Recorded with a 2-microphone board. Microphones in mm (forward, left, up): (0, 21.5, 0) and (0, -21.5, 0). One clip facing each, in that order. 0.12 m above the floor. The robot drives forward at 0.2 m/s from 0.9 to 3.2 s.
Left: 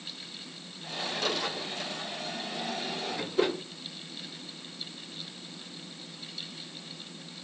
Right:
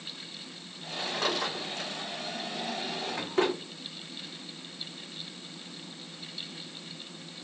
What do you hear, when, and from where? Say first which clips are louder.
1.1 s a drawer: right 1 dB; 65° right (ahead or behind), 3.5 m; by 3.5 s 60° right (ahead or behind), 3.5 m